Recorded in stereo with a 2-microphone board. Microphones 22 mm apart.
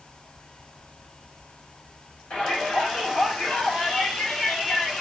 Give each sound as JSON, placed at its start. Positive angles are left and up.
{"t": 2.3, "sound": "a shout", "side_deg": 65, "distance_m": 6.5}